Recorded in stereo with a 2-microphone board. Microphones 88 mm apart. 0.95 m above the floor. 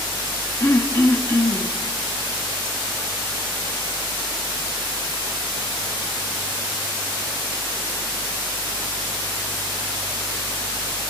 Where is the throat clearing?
30° left (ahead or behind), 1.9 m.